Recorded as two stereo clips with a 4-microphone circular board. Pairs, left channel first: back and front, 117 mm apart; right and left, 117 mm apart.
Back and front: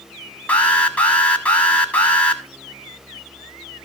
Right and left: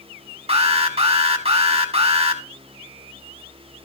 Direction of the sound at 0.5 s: 105° left.